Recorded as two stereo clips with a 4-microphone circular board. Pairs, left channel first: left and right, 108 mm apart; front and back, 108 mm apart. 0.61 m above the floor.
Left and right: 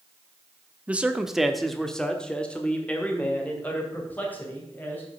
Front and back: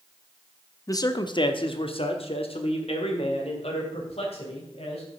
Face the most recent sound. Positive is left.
turn(degrees=15)